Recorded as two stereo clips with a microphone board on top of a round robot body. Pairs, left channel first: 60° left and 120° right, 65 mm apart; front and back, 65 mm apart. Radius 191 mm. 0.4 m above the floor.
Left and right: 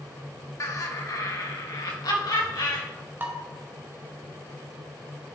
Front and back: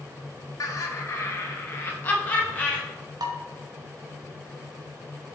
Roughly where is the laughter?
Ahead left.